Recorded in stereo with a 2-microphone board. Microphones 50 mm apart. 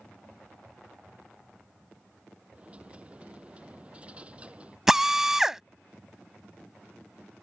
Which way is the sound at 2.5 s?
25° right (ahead or behind).